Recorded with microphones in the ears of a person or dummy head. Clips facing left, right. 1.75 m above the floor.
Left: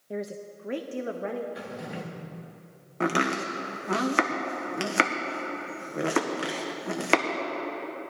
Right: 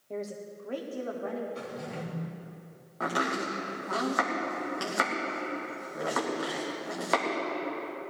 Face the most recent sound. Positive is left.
turn(degrees=45)  # may be behind; listen again after turning